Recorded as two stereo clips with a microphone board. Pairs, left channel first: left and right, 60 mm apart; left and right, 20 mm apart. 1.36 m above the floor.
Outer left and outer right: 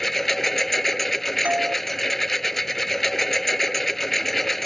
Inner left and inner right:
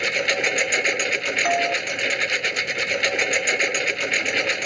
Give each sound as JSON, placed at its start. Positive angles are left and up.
{"t": 0.0, "sound": "a lawn mower", "side_deg": 5}
{"t": 1.4, "sound": "a doorbell", "side_deg": -25}